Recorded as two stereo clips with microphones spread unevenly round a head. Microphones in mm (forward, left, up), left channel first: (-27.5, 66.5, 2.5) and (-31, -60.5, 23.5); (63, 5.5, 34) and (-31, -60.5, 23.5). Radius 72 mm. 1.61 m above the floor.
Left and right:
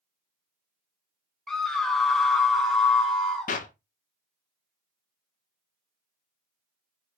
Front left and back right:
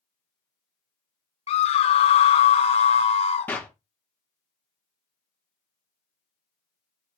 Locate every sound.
1.5 s a scream: straight ahead, 0.7 m
3.5 s a clap: 110° left, 0.8 m